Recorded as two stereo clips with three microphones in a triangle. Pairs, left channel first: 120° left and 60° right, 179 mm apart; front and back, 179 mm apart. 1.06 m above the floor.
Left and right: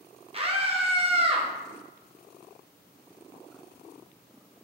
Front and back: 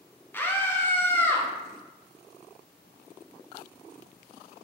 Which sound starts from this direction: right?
A scream, at 0.3 s.